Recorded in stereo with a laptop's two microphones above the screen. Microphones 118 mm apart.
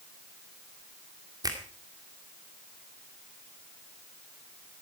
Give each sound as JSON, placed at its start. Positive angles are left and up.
{"t": 1.4, "sound": "a finger snap", "side_deg": -35, "distance_m": 2.0}